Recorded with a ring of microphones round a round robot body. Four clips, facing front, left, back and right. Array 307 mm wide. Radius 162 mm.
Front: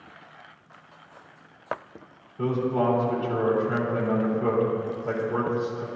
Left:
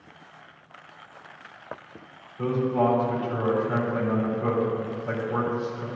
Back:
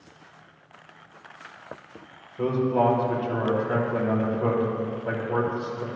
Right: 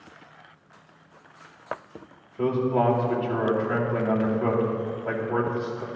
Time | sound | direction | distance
2.4 | a man speaking | 130° right | 2.5 m